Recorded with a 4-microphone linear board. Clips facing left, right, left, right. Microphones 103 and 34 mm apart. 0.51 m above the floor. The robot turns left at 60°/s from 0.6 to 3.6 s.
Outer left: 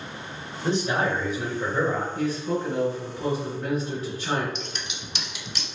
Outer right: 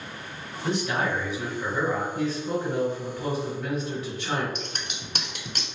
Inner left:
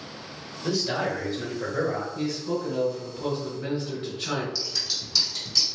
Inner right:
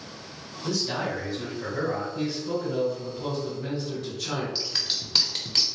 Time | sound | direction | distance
0.6 | a man speaking | 135° left | 1.8 m
2.1 | a man speaking | 135° right | 1.7 m
4.5 | scissors | 50° right (ahead or behind) | 0.5 m